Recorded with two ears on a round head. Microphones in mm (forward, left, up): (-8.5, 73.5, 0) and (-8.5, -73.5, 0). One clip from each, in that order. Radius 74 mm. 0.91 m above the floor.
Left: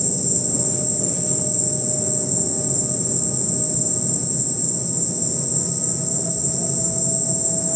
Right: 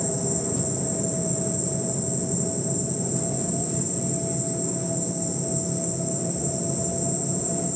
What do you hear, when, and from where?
0.0 s an insect: 25° left (ahead or behind)